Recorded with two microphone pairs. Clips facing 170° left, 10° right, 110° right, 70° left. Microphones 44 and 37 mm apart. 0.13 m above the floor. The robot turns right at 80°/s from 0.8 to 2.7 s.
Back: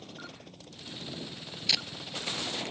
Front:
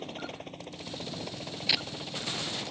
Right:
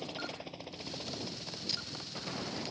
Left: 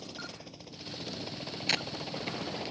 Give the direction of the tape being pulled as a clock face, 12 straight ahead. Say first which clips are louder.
Front 1 dB, left 11 dB; 10 o'clock.